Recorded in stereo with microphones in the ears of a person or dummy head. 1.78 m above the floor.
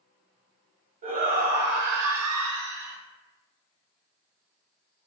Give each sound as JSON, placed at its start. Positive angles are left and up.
{"t": 1.0, "sound": "a shout", "side_deg": -30, "distance_m": 1.1}